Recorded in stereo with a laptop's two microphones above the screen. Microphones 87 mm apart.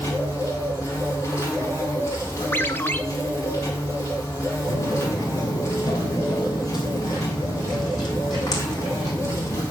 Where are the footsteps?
40° left (ahead or behind), 1.4 m; by 9.6 s 45° left (ahead or behind), 4.5 m.